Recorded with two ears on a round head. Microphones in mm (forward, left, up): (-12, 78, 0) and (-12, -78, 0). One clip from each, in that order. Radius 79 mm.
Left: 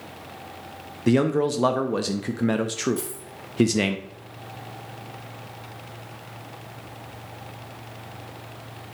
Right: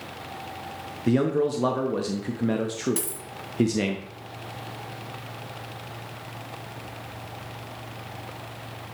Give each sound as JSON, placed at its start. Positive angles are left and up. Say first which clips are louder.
{"t": 1.1, "sound": "a man speaking", "louder": "left 2 dB", "side_deg": 25, "distance_m": 0.5}
{"t": 3.0, "sound": "a dropped coin", "louder": "even", "side_deg": -70, "distance_m": 1.7}